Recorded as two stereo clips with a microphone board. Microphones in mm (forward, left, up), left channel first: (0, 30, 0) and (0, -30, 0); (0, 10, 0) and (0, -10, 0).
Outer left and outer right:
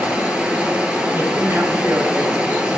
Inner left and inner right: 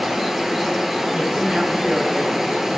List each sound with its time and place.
0.0 s running water: 20° right (ahead or behind), 1.0 m
1.1 s a woman speaking: 55° right (ahead or behind), 2.5 m